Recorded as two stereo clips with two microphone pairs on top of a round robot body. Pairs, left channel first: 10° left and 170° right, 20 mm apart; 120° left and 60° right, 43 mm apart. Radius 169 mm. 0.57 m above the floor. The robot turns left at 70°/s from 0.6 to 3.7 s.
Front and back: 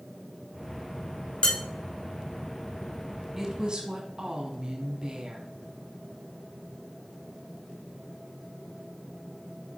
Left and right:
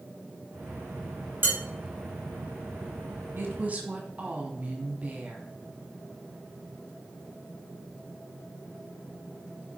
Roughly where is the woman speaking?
Right.